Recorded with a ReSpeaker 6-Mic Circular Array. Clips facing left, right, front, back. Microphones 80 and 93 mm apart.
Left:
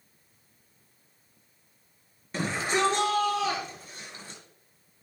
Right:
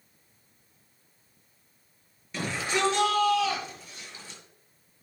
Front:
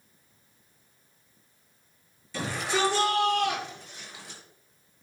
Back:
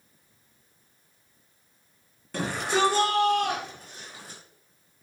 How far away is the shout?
About 7 m.